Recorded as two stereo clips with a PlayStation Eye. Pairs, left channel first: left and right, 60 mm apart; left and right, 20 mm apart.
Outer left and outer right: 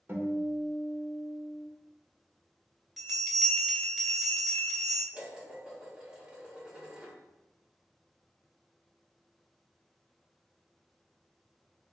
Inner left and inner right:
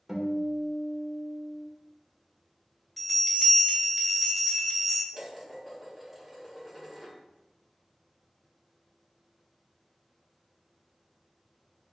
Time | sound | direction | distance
0.1 | a guitar | 40° right (ahead or behind) | 1.2 m
3.0 | a bell | 5° right (ahead or behind) | 1.3 m
5.1 | dishes clattering | 15° right (ahead or behind) | 1.3 m